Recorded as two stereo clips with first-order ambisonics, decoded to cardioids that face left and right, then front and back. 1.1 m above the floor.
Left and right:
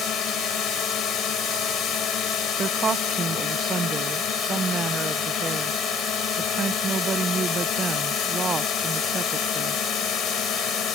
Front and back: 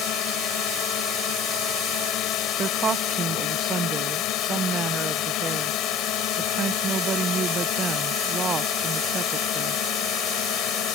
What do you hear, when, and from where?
0.0 s a drone: 40° left
2.6 s a woman speaking: 135° right